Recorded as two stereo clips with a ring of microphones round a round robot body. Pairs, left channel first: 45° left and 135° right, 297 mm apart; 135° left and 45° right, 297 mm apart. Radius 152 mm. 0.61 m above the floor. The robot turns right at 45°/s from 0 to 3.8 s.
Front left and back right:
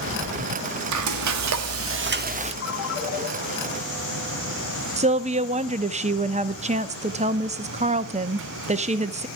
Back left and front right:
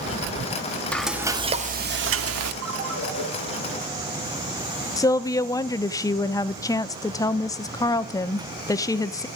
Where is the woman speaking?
160° right, 0.8 m.